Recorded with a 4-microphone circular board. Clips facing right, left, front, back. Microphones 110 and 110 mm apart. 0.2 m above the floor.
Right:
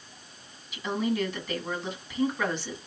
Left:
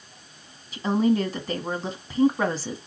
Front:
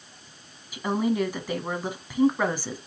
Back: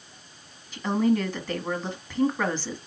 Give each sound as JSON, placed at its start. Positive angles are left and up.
{"t": 0.7, "sound": "a woman speaking", "azimuth_deg": 75, "distance_m": 1.3}